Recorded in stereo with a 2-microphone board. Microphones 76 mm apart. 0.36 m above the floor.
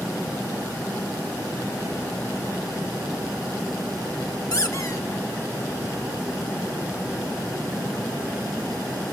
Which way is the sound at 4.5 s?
50° left (ahead or behind).